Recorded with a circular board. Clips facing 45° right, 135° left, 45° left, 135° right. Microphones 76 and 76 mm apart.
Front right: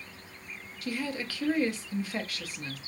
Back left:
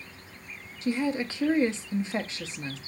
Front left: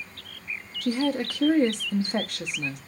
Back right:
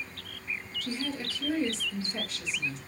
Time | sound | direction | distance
0.8 | a woman speaking | 70° left | 0.6 m